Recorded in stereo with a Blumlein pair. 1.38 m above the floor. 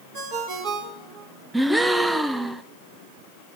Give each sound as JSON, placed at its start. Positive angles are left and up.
{"t": 0.1, "sound": "a ringtone", "azimuth_deg": -40, "distance_m": 3.5}
{"t": 1.5, "sound": "a gasp", "azimuth_deg": -5, "distance_m": 0.7}